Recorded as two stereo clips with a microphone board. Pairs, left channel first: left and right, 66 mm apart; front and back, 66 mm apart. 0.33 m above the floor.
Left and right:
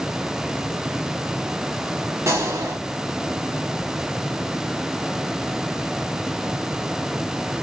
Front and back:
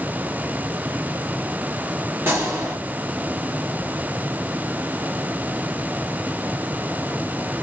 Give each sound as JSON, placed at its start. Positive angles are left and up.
{"t": 2.3, "sound": "a gunshot", "azimuth_deg": -130, "distance_m": 1.2}